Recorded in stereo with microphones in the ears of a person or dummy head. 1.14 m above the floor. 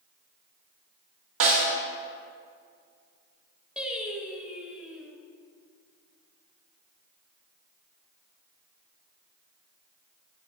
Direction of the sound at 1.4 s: 70° right (ahead or behind).